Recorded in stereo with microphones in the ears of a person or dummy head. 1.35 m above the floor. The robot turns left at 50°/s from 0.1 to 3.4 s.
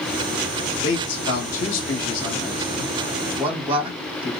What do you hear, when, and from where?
0.8 s a man speaking: 65° left (ahead or behind), 1.7 m; by 4.3 s 15° right (ahead or behind), 1.7 m